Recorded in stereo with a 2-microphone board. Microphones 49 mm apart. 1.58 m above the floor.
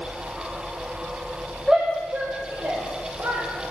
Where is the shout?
5° left (ahead or behind), 1.0 m; by 3.4 s 70° right (ahead or behind), 2.5 m.